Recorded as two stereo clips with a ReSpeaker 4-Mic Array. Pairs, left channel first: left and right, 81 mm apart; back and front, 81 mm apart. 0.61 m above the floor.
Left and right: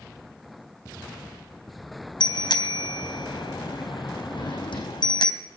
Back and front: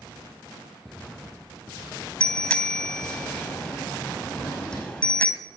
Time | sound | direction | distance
2.2 | a bicycle bell | 105° left | 3 m
4.3 | a drawer | 100° left | 8 m